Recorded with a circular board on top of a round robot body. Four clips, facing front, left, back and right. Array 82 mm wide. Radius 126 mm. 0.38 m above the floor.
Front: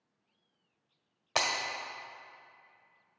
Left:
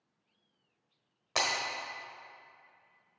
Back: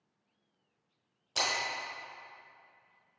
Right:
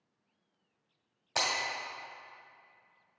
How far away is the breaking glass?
About 1.6 m.